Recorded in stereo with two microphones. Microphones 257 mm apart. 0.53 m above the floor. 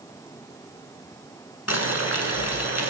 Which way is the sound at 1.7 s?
65° left (ahead or behind).